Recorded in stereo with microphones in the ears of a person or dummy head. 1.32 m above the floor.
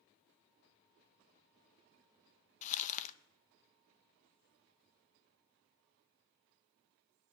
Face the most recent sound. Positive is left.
turn(degrees=40)  # may be behind; listen again after turning